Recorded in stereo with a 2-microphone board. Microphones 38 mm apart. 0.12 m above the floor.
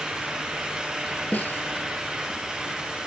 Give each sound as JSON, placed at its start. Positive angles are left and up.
{"t": 1.3, "sound": "a snare drum", "side_deg": 55, "distance_m": 1.3}